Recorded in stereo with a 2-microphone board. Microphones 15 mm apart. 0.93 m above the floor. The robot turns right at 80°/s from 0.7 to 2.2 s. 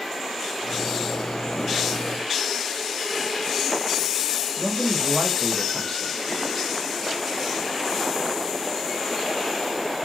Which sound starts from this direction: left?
A man speaking, at 4.6 s.